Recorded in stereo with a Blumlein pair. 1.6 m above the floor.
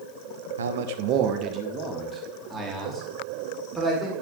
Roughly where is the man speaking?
Right.